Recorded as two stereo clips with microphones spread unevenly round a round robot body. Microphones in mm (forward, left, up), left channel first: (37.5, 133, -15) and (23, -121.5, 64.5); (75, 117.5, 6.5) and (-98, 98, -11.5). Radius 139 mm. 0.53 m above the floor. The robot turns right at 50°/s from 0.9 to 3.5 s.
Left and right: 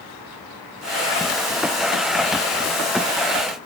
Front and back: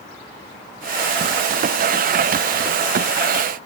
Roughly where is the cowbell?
No cowbell in this recording.